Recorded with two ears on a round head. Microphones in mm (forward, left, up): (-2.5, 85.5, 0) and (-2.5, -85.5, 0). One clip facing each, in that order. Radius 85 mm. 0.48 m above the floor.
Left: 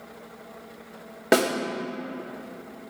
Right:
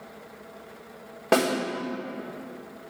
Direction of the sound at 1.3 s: 20° left (ahead or behind).